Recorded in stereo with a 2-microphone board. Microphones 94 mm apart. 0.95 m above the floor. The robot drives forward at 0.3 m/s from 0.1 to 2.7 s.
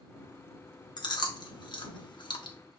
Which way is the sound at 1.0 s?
50° left (ahead or behind).